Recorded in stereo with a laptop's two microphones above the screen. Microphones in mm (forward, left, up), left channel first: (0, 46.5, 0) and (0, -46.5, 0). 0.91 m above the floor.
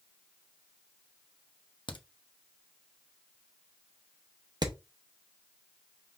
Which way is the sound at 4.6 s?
45° right (ahead or behind).